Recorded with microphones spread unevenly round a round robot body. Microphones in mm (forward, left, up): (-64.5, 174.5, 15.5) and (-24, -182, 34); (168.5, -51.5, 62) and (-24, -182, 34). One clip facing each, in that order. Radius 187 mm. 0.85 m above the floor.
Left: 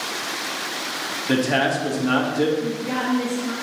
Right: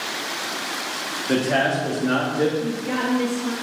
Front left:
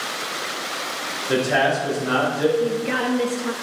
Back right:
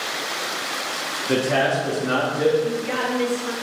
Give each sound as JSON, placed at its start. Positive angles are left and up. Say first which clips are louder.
{"t": 1.3, "sound": "a man speaking", "louder": "left 1 dB, even", "azimuth_deg": 160, "distance_m": 1.8}
{"t": 2.6, "sound": "a woman speaking", "louder": "even, front left 2 dB", "azimuth_deg": 0, "distance_m": 1.0}